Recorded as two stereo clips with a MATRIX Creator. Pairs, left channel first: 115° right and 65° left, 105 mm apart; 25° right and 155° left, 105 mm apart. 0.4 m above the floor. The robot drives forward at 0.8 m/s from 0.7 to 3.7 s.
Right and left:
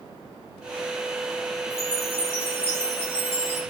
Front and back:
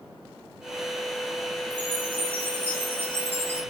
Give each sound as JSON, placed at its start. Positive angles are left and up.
{"t": 1.7, "sound": "a chime", "azimuth_deg": -130, "distance_m": 5.0}